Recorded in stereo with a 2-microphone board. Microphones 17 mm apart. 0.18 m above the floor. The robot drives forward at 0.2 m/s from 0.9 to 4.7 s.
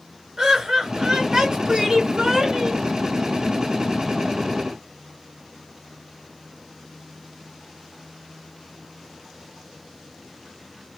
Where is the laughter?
50° right (ahead or behind), 2 m; by 2.8 s 55° right (ahead or behind), 2 m.